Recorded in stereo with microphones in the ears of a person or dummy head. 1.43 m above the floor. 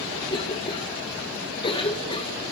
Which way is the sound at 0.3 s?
25° left (ahead or behind).